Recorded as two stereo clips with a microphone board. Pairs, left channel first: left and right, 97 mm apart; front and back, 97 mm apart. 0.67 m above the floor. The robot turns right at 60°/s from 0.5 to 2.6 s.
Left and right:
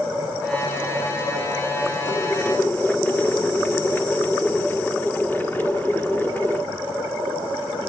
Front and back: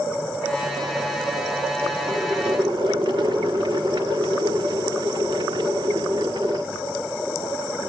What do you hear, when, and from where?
2.1 s boiling: 125° left, 1.4 m; by 6.6 s 155° left, 1.4 m